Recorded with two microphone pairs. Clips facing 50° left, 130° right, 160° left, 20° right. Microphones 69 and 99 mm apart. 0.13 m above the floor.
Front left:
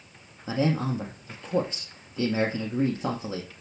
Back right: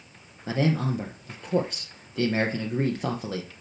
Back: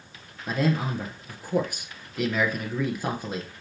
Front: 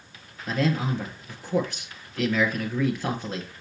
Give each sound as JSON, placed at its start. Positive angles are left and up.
{"t": 0.5, "sound": "a man speaking", "azimuth_deg": -120, "distance_m": 2.0}